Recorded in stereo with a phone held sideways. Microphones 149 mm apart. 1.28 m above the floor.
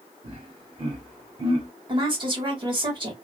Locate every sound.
0.2 s laughter: 35° right (ahead or behind), 1.4 m
1.9 s a woman speaking: 30° right (ahead or behind), 1.5 m